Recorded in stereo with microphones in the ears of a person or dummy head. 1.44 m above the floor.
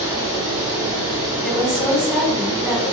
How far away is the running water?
About 1.6 m.